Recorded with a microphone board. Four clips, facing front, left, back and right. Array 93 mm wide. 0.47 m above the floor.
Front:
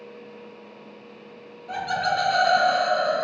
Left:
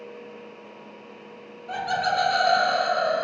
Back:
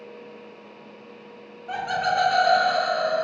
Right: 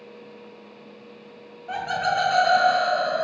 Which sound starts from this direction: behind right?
Laughter, at 1.7 s.